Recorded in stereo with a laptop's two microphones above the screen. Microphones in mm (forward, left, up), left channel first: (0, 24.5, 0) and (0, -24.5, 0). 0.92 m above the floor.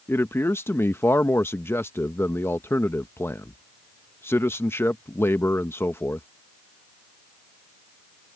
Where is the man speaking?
55° left (ahead or behind).